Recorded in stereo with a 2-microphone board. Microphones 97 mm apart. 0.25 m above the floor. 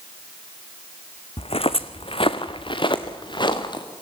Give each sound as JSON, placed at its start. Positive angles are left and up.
{"t": 1.4, "sound": "footsteps", "side_deg": 80, "distance_m": 1.0}